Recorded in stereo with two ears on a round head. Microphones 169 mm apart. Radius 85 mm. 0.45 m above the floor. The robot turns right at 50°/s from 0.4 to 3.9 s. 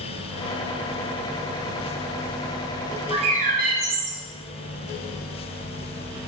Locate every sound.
3.1 s a bird: 155° right, 2.5 m; by 4.2 s 115° right, 2.5 m